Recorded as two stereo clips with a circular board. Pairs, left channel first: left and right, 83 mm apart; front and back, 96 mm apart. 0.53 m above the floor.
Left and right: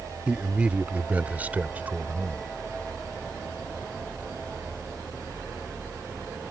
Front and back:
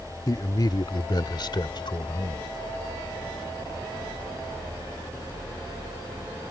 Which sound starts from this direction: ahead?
A man speaking, at 0.3 s.